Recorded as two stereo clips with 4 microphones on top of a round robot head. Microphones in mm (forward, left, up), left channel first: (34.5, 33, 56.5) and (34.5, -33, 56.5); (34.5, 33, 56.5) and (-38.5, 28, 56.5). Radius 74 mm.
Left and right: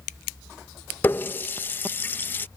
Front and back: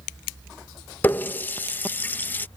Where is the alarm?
I don't hear an alarm.